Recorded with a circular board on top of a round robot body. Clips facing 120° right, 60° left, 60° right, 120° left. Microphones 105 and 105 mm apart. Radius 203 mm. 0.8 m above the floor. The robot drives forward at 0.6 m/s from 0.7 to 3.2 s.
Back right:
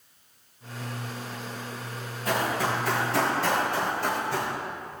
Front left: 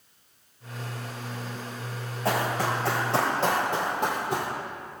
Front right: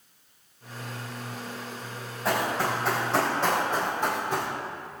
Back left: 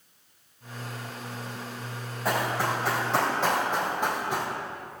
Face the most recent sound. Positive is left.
turn(degrees=40)